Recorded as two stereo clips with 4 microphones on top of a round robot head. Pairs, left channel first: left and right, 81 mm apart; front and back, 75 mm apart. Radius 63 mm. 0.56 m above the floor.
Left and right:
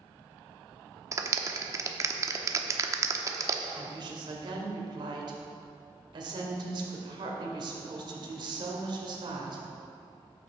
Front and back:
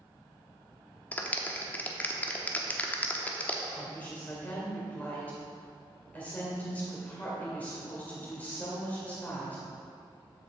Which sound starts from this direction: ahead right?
A clap, at 1.1 s.